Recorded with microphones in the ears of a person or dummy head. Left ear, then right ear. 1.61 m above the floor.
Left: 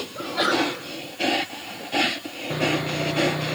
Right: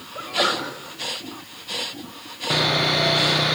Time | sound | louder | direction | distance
0.1 | a sneeze | right 1 dB | 10° right (ahead or behind) | 6 m
2.5 | sawing | right 5 dB | 75° right (ahead or behind) | 0.6 m